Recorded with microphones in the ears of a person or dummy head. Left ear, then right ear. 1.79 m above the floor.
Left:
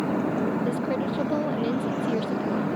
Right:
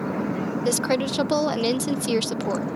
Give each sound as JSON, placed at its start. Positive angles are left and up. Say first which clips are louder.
{"t": 0.7, "sound": "a woman speaking", "louder": "right 4 dB", "side_deg": -65}